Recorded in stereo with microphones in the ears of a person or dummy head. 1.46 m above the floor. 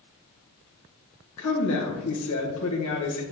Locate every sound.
1.4 s a woman speaking: 85° left, 1.6 m